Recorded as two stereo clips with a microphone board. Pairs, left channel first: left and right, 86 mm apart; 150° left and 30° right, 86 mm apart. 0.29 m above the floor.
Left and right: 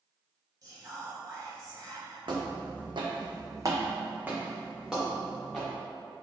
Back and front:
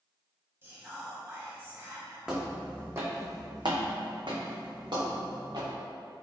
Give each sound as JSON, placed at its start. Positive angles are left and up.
{"t": 0.6, "sound": "whispering", "azimuth_deg": -80, "distance_m": 1.3}
{"t": 2.3, "sound": "footsteps", "azimuth_deg": -110, "distance_m": 1.0}